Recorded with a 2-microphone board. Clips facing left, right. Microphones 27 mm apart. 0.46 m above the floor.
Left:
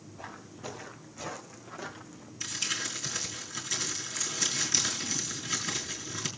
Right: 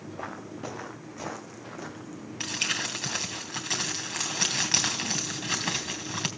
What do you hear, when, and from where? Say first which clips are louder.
0.2 s footsteps: right 5 dB; 55° right (ahead or behind), 2.5 m; by 2.3 s 5° left (ahead or behind), 2.5 m
2.4 s crumpling: right 4 dB; 65° right (ahead or behind), 3 m